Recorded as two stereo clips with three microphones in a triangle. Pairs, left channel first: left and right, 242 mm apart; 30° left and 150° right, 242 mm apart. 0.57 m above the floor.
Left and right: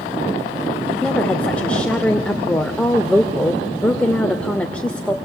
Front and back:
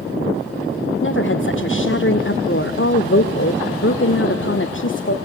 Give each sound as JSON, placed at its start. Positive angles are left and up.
{"t": 1.0, "sound": "a woman speaking", "azimuth_deg": 5, "distance_m": 1.7}